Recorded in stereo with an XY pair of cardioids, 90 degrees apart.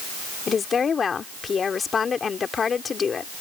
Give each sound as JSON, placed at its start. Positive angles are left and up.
{"t": 0.5, "sound": "a woman speaking", "azimuth_deg": 50}